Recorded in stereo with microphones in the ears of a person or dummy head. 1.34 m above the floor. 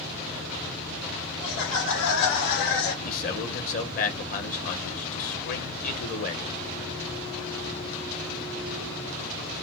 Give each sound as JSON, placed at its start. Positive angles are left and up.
{"t": 1.4, "sound": "laughter", "side_deg": 75, "distance_m": 1.4}
{"t": 3.0, "sound": "a man speaking", "side_deg": 45, "distance_m": 1.2}